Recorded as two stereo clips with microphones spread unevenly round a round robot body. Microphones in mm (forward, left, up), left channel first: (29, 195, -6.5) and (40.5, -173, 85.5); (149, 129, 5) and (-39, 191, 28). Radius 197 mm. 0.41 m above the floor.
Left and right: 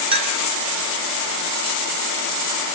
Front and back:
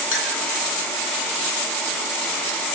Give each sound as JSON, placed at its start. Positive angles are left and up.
{"t": 0.1, "sound": "a clink", "azimuth_deg": -10, "distance_m": 2.0}